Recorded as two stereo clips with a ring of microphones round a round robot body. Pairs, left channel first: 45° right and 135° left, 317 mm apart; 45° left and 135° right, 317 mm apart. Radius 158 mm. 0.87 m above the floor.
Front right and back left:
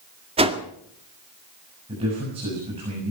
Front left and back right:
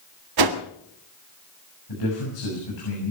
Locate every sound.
0.4 s a whoosh: 150° right, 1.8 m
1.9 s a man speaking: 60° left, 7 m